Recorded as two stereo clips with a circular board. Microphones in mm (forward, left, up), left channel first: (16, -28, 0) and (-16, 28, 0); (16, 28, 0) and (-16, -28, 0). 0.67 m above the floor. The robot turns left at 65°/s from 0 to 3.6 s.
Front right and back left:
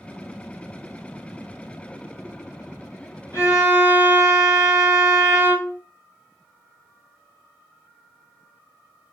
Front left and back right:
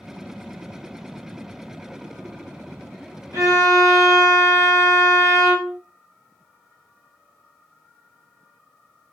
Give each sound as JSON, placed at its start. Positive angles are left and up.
{"t": 3.3, "sound": "a violin", "azimuth_deg": -90, "distance_m": 2.5}